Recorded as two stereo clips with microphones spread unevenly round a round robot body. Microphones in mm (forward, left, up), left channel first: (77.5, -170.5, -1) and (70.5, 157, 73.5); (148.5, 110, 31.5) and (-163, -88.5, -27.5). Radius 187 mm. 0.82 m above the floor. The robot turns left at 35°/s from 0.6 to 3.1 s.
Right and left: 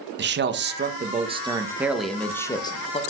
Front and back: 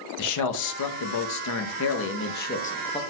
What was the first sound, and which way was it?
A man speaking, 35° left.